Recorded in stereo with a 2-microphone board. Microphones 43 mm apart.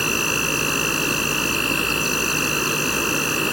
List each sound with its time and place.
0.0 s an insect: 5° right (ahead or behind)